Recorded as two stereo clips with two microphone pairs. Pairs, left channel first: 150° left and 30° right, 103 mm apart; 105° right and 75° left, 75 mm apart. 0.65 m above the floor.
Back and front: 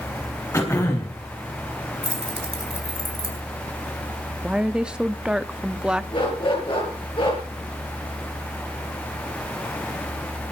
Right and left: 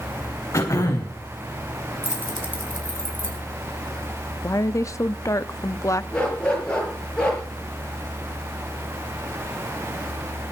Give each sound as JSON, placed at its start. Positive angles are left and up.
{"t": 0.5, "sound": "throat clearing", "azimuth_deg": -150, "distance_m": 4.0}
{"t": 2.0, "sound": "keys jangling", "azimuth_deg": -35, "distance_m": 3.5}
{"t": 4.4, "sound": "a woman speaking", "azimuth_deg": -110, "distance_m": 0.7}
{"t": 6.1, "sound": "a dog barking", "azimuth_deg": 180, "distance_m": 6.0}